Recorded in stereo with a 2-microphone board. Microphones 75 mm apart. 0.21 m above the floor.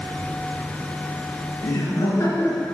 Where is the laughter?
50° left (ahead or behind), 2.5 m; by 2.6 s 35° left (ahead or behind), 2 m.